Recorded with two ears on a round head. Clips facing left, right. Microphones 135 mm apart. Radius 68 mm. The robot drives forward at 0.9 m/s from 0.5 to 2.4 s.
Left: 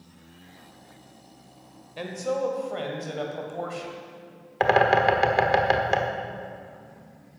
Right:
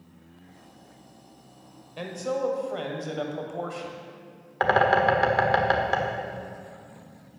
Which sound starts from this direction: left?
A bird, at 4.6 s.